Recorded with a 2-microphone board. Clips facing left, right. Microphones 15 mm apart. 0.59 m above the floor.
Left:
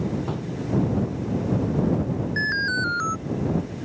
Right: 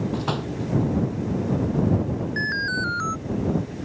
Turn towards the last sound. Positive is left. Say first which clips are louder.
# left 2 dB
turn(degrees=5)  # may be behind; listen again after turning